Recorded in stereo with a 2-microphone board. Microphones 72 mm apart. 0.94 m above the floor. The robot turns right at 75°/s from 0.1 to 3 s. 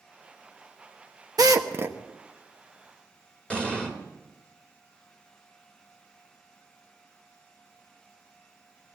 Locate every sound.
1.4 s a drill: 60° right (ahead or behind), 1.0 m; by 2.0 s 25° right (ahead or behind), 1.0 m
3.5 s an explosion: 15° left (ahead or behind), 2 m